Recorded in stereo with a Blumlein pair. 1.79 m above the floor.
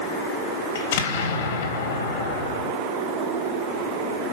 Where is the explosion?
55° left, 3.5 m.